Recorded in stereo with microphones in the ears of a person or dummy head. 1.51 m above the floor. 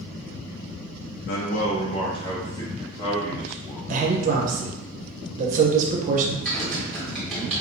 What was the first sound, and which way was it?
A man speaking, 55° left (ahead or behind).